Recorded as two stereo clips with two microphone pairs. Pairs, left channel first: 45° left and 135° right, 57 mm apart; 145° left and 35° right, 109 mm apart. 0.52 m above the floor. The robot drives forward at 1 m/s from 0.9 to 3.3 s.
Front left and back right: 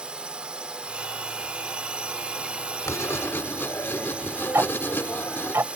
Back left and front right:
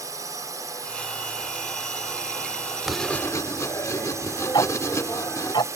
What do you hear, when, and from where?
0.0 s a drone: 70° right; by 5.8 s 75° right
2.9 s writing: 50° left; by 5.5 s 85° left
4.5 s ticking: 175° right